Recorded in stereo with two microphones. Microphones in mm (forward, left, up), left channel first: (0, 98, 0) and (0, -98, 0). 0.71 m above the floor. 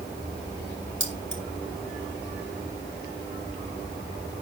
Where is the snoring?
I don't hear snoring.